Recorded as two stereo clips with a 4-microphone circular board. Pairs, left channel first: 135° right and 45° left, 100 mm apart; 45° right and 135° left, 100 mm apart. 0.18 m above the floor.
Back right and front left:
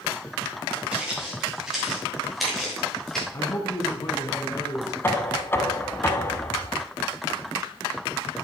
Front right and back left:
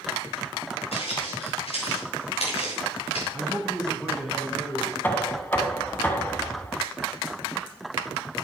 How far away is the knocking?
About 0.8 m.